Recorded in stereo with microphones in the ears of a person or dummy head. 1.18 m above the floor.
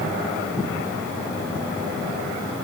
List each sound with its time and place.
Only background noise.